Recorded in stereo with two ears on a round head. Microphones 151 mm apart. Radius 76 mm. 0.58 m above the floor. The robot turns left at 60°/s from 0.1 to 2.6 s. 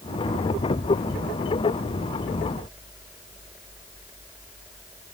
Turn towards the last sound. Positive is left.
No sound to turn to.